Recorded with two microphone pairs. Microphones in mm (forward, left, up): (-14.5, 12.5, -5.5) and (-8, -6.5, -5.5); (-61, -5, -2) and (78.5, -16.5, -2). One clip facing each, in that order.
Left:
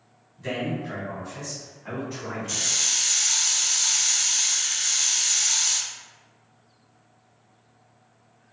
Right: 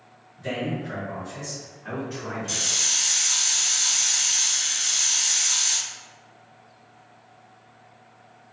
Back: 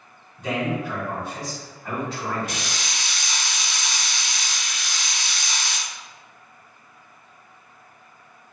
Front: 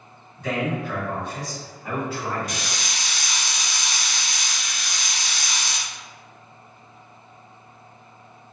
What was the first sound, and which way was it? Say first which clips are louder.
A man speaking: even, even; 170° left.